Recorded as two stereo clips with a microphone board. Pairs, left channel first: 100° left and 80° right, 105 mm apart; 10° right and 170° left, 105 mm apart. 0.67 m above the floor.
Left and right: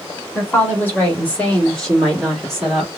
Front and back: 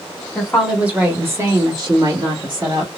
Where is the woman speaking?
65° left, 1.2 m; by 2.9 s 170° right, 1.9 m.